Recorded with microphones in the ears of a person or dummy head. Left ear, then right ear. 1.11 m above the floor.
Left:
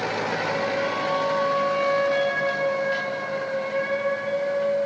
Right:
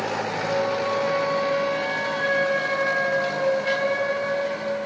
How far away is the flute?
About 2.5 m.